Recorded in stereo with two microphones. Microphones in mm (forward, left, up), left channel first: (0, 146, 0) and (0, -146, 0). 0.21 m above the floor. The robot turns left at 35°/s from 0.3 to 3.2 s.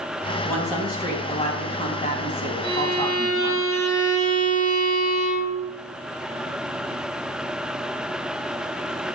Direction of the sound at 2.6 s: 65° left (ahead or behind).